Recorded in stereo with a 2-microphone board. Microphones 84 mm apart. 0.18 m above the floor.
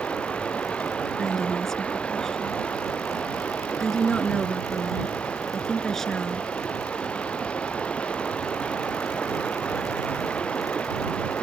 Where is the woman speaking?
5° left (ahead or behind).